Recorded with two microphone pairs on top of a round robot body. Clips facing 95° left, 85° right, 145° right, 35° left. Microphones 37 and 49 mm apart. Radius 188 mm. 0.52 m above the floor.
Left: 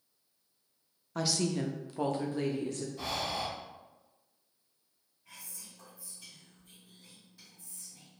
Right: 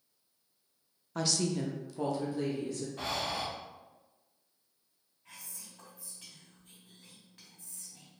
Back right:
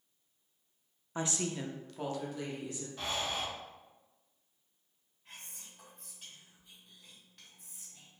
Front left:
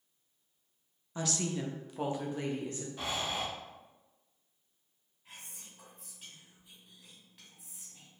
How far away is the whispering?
About 1.8 m.